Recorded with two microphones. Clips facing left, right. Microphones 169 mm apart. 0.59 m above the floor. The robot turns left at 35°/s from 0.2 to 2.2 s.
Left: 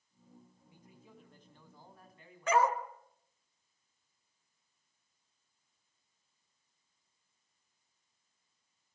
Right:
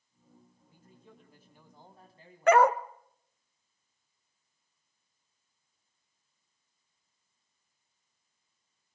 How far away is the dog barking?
About 0.8 m.